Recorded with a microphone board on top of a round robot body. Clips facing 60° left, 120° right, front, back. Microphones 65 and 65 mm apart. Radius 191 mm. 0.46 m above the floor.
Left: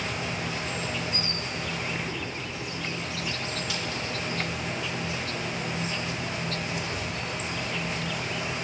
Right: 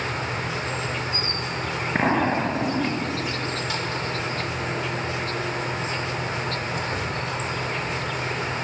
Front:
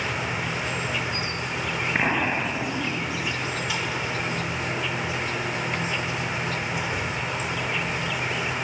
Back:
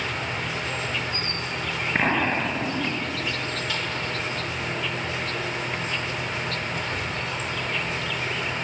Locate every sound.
0.0 s an insect: 80° right
1.9 s an explosion: 95° right